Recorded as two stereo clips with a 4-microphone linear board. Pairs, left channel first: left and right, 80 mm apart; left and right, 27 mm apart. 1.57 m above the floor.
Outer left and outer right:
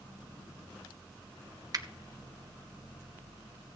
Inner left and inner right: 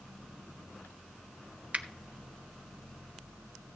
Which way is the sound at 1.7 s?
50° right (ahead or behind).